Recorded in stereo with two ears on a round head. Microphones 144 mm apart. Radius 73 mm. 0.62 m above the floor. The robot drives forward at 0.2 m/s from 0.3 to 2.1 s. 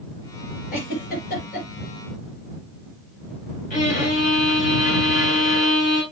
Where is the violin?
50° left (ahead or behind), 5 m.